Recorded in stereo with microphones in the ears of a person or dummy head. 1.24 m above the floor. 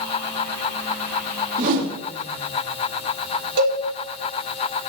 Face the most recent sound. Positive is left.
turn(degrees=-70)  # may be behind; listen again after turning